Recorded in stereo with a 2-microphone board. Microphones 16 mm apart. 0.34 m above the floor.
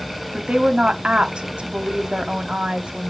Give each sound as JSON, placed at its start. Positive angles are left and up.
{"t": 0.3, "sound": "a woman speaking", "side_deg": -60, "distance_m": 1.7}